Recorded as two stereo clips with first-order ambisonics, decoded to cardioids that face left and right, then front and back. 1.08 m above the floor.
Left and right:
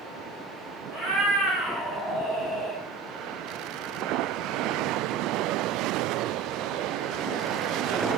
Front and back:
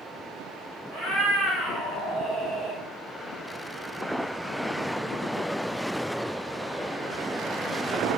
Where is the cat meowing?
65° right, 1.9 m.